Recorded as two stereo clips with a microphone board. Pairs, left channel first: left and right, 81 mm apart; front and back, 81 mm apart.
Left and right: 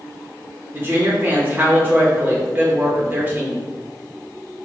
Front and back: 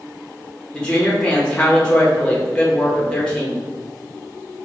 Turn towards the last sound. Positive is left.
turn(degrees=-65)